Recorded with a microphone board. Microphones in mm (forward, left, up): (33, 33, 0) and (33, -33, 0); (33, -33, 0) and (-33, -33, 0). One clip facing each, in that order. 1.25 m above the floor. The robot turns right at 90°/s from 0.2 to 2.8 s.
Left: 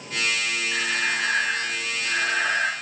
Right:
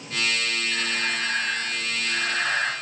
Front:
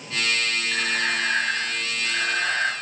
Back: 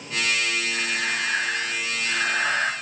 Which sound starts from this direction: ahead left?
Breathing, at 0.7 s.